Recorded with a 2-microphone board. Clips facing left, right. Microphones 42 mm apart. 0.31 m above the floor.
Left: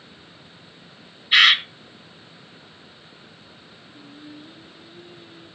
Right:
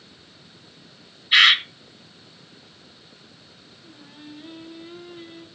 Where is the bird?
5° left (ahead or behind), 1.4 m.